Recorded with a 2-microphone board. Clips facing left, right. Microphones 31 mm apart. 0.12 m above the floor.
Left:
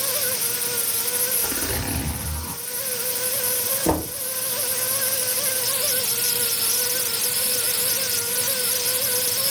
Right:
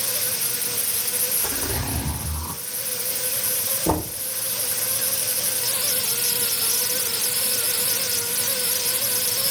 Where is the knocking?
50° left (ahead or behind), 2 m.